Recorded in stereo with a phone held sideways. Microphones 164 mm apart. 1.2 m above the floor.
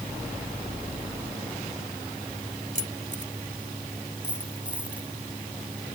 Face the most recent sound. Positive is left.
turn(degrees=-10)  # may be behind; listen again after turning